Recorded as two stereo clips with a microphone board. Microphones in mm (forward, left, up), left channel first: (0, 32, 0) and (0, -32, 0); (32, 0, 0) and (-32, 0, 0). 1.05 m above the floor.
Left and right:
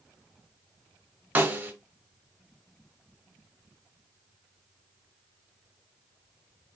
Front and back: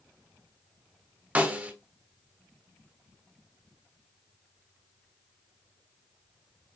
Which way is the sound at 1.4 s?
130° right.